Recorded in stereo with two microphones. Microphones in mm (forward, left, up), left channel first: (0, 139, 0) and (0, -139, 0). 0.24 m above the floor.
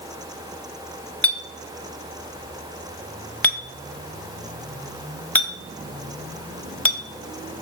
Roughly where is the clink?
Centre.